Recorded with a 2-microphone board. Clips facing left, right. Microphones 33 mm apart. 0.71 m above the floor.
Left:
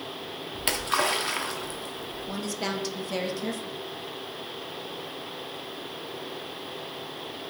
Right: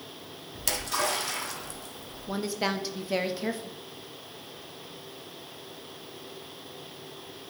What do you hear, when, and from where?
0.6 s a splash: 35° left (ahead or behind), 0.8 m
2.3 s a woman speaking: 20° right (ahead or behind), 0.5 m